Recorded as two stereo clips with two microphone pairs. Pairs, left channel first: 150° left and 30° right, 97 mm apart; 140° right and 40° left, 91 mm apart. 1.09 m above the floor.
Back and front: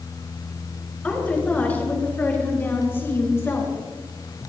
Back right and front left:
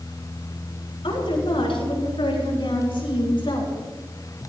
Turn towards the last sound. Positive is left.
turn(degrees=-150)